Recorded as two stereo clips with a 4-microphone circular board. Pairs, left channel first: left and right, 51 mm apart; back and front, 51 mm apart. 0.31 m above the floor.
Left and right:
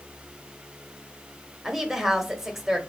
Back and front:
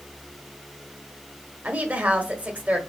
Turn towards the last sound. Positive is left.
turn(degrees=-10)